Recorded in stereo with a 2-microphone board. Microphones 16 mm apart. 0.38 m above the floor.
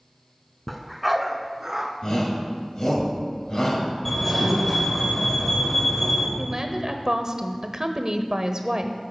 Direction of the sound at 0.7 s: 10° left (ahead or behind).